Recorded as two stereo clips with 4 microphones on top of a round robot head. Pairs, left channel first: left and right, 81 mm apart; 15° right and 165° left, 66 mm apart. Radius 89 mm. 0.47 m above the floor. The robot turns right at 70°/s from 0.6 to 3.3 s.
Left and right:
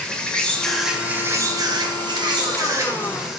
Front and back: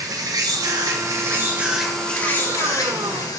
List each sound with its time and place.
0.0 s an insect: 165° left, 2 m; by 3.4 s 5° right, 2 m